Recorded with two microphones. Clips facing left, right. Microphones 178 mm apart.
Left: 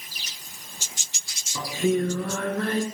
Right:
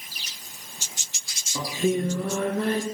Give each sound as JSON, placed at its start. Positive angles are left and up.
{"t": 1.6, "sound": "singing", "side_deg": -20, "distance_m": 2.0}